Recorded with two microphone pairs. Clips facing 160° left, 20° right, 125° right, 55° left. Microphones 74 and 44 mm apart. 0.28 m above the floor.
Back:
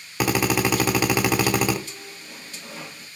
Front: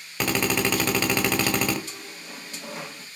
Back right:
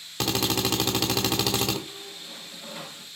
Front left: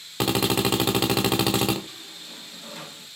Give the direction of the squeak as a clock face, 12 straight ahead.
2 o'clock.